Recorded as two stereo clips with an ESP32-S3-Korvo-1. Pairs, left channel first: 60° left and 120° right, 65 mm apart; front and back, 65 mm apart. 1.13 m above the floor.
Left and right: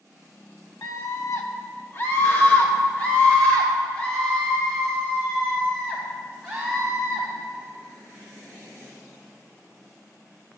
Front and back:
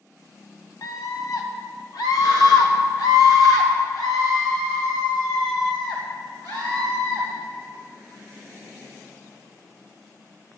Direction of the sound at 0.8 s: 30° left.